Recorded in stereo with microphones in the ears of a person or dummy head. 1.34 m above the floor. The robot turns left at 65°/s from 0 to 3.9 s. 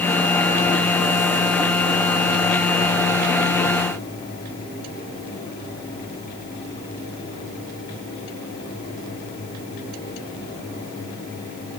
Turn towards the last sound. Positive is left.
No sound to turn to.